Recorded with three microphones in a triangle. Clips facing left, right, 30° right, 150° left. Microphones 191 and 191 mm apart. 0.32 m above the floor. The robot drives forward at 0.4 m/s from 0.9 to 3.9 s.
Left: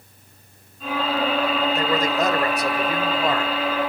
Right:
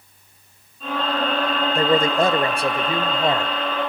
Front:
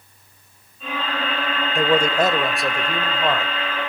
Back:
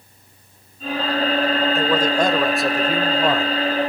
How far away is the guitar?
No guitar in this recording.